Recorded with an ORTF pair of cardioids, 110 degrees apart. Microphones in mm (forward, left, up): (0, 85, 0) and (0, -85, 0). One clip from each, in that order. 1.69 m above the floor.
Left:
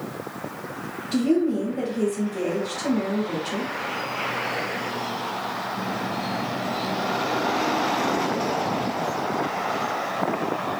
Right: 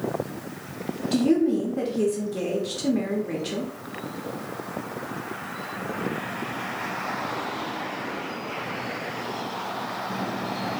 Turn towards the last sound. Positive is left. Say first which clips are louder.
# even
turn(degrees=-20)